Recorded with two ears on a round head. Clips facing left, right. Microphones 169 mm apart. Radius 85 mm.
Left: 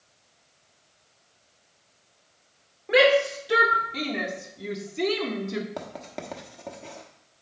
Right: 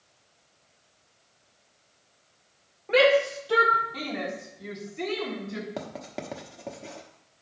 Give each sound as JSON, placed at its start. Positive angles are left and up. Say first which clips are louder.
{"t": 2.9, "sound": "a shout", "louder": "left 1 dB", "side_deg": 10, "distance_m": 2.0}
{"t": 5.8, "sound": "writing", "louder": "right 1 dB", "side_deg": -5, "distance_m": 1.1}